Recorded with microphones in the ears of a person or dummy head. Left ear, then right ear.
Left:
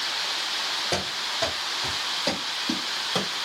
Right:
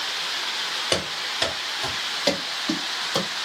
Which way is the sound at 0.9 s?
40° right (ahead or behind).